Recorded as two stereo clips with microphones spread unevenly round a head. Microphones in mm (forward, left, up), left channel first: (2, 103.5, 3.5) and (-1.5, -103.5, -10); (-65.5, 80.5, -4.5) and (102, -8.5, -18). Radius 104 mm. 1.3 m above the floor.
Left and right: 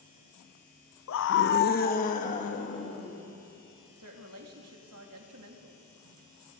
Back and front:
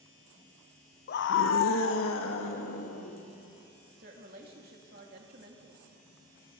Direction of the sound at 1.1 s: 115° left.